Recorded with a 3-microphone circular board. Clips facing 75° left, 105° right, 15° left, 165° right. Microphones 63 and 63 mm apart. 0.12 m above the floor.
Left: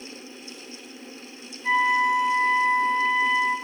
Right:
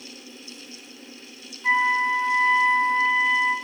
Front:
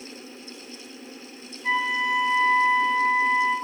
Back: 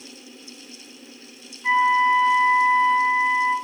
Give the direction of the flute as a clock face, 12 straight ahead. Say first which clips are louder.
Even, back 7 dB; 4 o'clock.